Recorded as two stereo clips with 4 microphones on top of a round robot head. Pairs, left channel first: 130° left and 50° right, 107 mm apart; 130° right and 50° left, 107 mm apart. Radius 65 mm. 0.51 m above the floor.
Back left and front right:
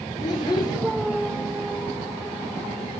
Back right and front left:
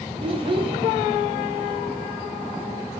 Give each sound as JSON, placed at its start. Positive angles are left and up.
{"t": 0.2, "sound": "a child speaking", "azimuth_deg": 80, "distance_m": 0.7}